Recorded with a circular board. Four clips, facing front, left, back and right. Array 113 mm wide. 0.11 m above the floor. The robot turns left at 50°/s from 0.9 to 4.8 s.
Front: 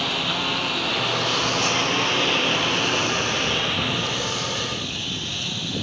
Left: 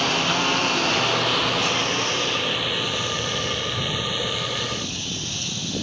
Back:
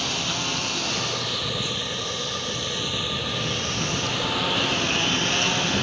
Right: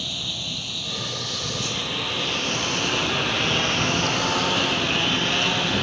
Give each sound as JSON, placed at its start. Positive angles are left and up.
{"t": 0.0, "sound": "a lawn mower", "azimuth_deg": 80}